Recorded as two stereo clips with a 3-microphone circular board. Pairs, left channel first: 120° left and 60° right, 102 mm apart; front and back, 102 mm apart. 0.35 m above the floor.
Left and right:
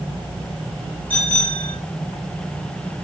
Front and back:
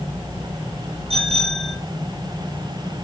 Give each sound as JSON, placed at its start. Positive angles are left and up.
{"t": 1.1, "sound": "a bicycle bell", "azimuth_deg": -165, "distance_m": 8.0}